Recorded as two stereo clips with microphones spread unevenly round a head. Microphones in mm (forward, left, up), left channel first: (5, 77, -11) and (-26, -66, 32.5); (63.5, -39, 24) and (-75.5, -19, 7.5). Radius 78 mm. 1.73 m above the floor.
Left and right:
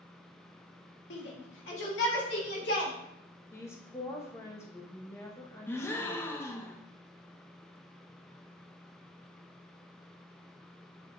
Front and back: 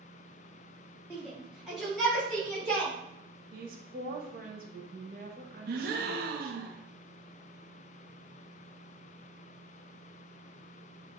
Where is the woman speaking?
160° left, 0.9 m.